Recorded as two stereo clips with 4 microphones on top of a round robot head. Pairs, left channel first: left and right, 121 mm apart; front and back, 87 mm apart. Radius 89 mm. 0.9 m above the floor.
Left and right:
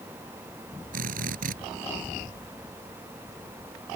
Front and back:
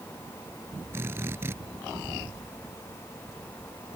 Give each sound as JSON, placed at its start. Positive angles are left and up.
{"t": 0.9, "sound": "a drill", "azimuth_deg": -105}